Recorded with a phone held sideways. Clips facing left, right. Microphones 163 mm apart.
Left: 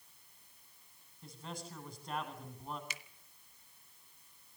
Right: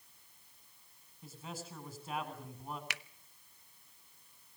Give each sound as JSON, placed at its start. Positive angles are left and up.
{"t": 1.2, "sound": "a man speaking", "side_deg": -5, "distance_m": 9.0}
{"t": 2.9, "sound": "a finger snap", "side_deg": -70, "distance_m": 0.8}